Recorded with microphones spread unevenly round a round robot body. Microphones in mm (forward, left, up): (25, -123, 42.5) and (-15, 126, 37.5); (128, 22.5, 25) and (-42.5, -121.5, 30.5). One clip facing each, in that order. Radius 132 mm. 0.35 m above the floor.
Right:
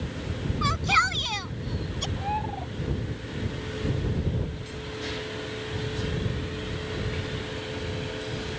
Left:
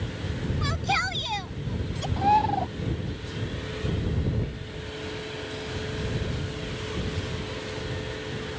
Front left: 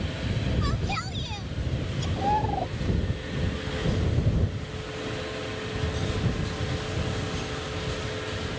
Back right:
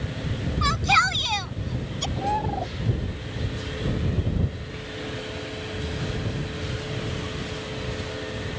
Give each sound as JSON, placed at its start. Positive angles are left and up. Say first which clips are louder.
{"t": 0.6, "sound": "a shout", "louder": "even, back right 3 dB", "azimuth_deg": -165}
{"t": 2.2, "sound": "a bird", "louder": "left 7 dB, even", "azimuth_deg": 130}